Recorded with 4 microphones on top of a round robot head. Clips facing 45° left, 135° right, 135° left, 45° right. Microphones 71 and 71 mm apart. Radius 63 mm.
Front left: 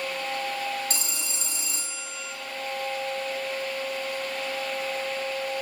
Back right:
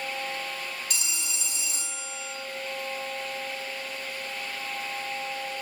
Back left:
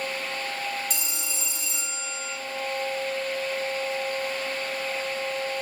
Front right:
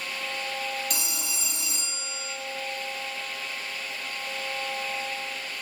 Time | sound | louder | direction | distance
0.9 | a phone ringing | front left 2 dB, even | 5° right | 0.8 m